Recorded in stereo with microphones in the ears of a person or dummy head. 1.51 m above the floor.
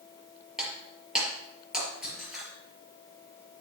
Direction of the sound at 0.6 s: 5° right (ahead or behind).